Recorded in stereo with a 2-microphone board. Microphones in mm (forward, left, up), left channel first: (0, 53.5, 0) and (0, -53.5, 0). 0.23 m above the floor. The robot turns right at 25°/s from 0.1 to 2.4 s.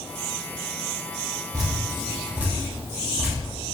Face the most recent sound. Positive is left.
turn(degrees=-15)  # may be behind; listen again after turning